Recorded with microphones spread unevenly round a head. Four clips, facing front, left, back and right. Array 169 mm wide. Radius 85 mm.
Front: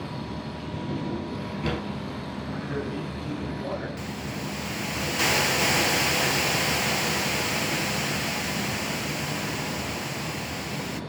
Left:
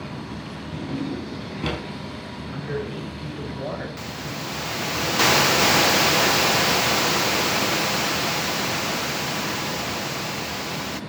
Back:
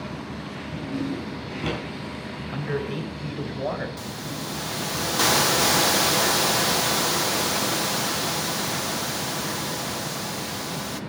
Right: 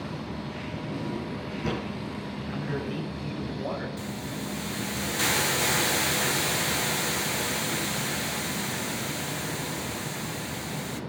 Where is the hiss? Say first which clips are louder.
Left 2 dB, even; 105° left, 1.1 m.